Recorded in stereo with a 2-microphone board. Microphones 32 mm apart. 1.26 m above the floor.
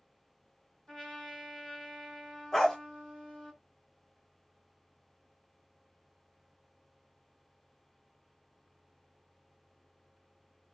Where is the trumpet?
20° left (ahead or behind), 2.5 m.